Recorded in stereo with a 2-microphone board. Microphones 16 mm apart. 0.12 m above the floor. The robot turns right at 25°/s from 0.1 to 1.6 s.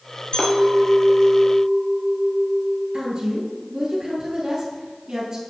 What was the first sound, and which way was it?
A clink, 95° left.